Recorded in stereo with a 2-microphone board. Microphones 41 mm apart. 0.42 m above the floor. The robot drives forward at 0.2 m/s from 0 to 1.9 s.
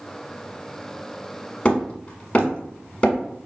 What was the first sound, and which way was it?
Hammering, 25° left (ahead or behind).